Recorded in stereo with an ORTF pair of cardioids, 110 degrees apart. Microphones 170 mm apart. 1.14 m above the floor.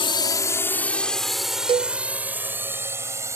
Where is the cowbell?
30° right.